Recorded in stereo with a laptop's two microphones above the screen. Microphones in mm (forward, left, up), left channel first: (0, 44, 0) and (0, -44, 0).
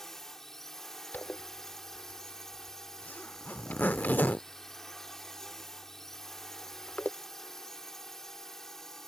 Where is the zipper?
20° left (ahead or behind).